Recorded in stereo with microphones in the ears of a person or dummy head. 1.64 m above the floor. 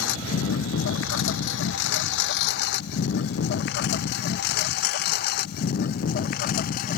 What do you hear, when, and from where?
0.0 s a lawn mower: 75° left (ahead or behind); by 7.0 s 45° left (ahead or behind)